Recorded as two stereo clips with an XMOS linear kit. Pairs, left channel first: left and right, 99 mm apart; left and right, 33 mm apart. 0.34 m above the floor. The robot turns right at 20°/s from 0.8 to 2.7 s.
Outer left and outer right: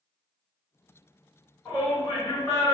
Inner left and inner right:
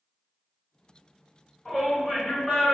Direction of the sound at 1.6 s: 30° left (ahead or behind).